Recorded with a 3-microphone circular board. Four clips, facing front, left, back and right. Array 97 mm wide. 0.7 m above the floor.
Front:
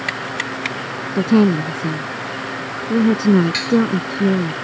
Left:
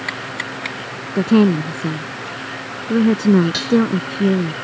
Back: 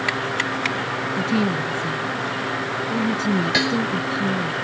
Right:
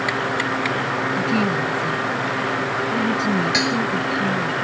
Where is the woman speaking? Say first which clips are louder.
Left 10 dB, front 9 dB; 50° left.